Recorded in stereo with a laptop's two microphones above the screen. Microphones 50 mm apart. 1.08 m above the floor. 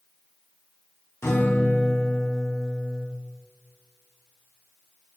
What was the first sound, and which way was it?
A guitar, 70° left (ahead or behind).